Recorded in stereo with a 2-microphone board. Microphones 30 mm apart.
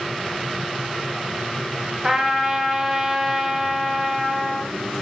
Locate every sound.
2.0 s a trumpet: 20° right (ahead or behind), 1.3 m